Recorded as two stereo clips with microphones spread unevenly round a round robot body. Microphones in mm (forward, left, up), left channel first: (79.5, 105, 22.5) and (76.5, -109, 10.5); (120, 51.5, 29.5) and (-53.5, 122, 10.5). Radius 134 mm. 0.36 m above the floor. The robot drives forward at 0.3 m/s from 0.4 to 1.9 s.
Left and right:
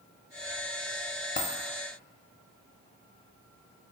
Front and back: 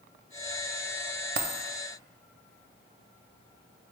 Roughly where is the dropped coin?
Behind left.